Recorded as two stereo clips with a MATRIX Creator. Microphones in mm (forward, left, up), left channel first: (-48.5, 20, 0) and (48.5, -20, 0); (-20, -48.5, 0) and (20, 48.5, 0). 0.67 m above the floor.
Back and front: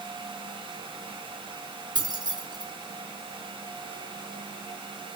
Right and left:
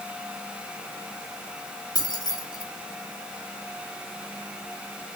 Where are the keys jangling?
65° right, 1.3 m.